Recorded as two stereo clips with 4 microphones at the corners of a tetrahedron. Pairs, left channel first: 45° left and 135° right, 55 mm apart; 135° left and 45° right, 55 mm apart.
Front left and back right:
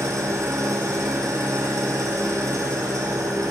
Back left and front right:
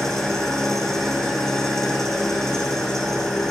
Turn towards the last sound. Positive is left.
turn(degrees=-145)